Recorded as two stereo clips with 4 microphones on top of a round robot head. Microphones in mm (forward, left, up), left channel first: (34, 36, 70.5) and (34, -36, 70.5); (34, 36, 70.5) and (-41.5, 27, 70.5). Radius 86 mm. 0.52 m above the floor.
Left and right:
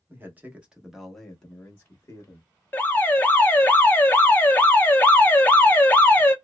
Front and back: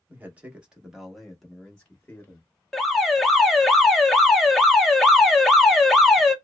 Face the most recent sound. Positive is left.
turn(degrees=90)